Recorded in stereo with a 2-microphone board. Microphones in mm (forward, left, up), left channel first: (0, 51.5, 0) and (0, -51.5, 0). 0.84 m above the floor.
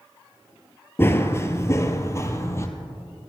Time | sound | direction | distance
1.0 | running footsteps | 25° left (ahead or behind) | 0.8 m